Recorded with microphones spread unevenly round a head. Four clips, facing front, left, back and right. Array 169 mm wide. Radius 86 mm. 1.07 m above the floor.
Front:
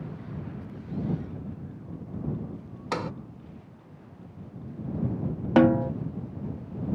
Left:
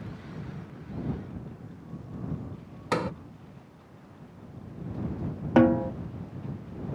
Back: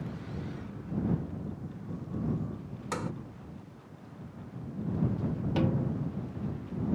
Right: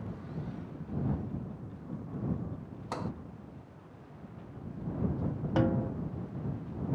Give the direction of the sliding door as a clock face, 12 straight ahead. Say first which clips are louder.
Left 9 dB, front 4 dB; 9 o'clock.